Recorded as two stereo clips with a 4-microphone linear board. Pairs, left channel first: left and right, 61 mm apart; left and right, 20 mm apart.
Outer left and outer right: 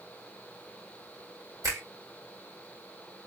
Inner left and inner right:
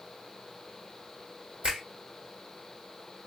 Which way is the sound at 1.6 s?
70° right (ahead or behind).